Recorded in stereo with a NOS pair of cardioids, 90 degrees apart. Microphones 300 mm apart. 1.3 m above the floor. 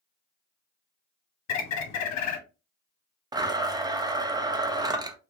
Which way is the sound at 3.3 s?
15° right.